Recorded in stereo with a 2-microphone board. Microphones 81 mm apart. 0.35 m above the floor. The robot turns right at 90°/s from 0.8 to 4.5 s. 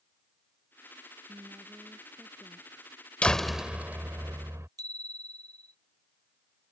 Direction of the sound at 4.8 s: 50° right (ahead or behind).